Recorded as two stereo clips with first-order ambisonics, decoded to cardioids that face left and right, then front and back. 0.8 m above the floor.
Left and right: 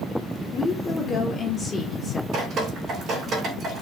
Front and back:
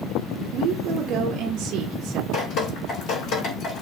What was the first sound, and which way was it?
A woman speaking, 155° left.